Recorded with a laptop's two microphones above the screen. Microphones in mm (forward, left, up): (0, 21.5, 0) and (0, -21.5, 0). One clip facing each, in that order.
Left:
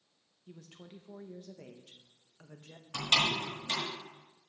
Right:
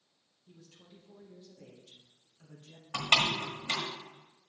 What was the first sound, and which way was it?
A woman speaking, 55° left (ahead or behind).